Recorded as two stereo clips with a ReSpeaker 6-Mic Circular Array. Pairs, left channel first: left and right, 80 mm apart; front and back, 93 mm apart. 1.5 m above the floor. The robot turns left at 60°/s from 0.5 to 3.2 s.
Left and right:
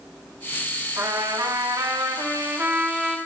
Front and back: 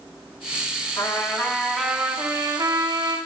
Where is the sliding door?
No sliding door in this recording.